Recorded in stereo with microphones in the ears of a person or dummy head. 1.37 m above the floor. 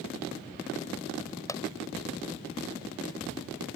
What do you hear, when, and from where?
1.5 s a pop: 15° left (ahead or behind)